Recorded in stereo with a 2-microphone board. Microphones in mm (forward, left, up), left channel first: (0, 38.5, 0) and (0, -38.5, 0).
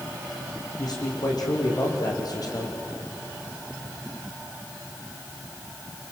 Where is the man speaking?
60° left (ahead or behind), 6 m; by 2.8 s 55° left (ahead or behind), 4.5 m.